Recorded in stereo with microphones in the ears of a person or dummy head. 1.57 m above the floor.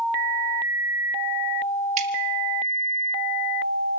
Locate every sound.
2.0 s dripping: 40° right (ahead or behind), 1.4 m